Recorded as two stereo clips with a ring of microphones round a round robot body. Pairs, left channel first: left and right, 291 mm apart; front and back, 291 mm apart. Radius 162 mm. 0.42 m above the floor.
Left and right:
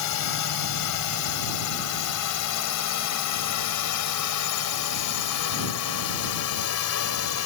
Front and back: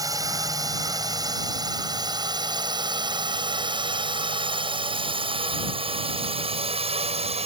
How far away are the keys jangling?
No keys jangling in this recording.